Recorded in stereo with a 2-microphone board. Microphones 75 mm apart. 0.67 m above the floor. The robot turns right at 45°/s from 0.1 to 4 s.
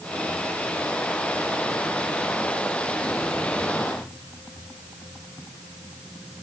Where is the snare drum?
I don't hear a snare drum.